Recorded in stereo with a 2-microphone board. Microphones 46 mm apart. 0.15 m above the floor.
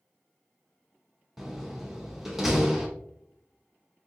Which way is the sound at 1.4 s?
5° right (ahead or behind).